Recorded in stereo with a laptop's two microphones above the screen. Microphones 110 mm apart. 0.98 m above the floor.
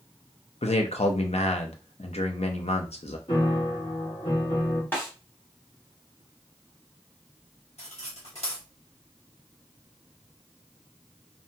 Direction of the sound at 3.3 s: 60° left (ahead or behind).